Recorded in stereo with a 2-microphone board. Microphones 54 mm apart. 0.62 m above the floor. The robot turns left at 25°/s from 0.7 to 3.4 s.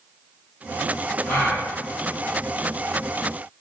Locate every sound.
1.3 s a gasp: 45° left (ahead or behind), 1.5 m